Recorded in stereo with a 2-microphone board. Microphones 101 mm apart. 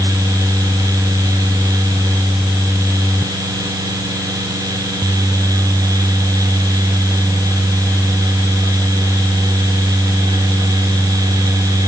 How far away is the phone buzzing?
I don't hear a phone buzzing.